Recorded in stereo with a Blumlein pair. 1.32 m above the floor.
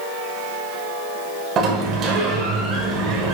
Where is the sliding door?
30° right, 0.9 m.